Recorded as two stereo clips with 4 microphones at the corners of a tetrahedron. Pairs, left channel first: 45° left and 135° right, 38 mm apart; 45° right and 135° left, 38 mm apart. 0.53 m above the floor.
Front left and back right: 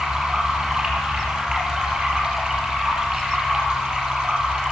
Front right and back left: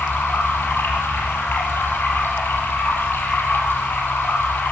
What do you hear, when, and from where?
0.0 s running water: 60° right, 5 m